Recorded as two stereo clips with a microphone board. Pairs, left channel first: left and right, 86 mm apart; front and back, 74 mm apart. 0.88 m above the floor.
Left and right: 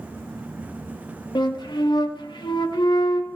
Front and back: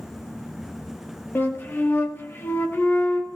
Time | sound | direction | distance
1.4 | a flute | 60° left | 1.5 m